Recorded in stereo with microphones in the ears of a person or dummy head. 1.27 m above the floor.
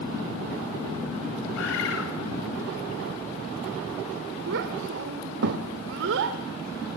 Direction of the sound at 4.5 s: 60° right (ahead or behind).